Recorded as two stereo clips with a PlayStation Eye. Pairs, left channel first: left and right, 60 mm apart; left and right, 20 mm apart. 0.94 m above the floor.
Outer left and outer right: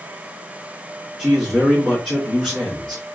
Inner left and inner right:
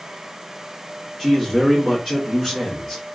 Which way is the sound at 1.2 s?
10° left (ahead or behind).